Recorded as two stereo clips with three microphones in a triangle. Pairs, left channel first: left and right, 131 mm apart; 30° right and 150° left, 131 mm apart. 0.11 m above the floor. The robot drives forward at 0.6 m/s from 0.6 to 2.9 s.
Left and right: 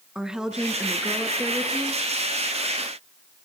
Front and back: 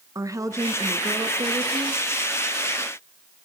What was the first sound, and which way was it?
A woman speaking, 170° right.